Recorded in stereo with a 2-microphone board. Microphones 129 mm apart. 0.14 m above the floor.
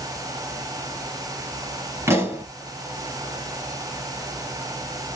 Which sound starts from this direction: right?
A pop, at 2.1 s.